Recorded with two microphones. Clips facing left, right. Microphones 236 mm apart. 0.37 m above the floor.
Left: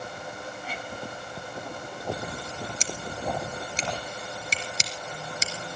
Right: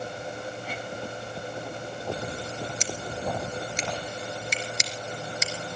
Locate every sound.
2.8 s scissors: 35° left (ahead or behind), 2.5 m